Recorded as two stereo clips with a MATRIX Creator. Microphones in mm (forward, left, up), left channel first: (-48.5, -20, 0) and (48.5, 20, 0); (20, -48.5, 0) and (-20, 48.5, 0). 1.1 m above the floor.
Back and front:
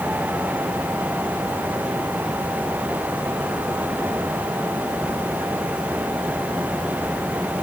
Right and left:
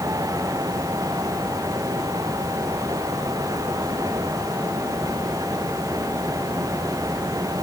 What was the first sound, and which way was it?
Only background noise.